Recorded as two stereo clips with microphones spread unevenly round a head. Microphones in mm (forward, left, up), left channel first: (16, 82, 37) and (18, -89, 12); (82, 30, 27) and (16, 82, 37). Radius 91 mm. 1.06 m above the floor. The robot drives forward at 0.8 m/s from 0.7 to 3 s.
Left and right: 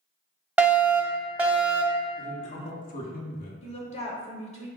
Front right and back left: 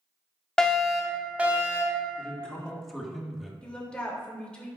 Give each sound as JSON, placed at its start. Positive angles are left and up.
{"t": 0.6, "sound": "a fire alarm", "azimuth_deg": -75, "distance_m": 1.1}
{"t": 2.2, "sound": "a man speaking", "azimuth_deg": 35, "distance_m": 2.0}
{"t": 3.6, "sound": "a woman speaking", "azimuth_deg": 35, "distance_m": 2.5}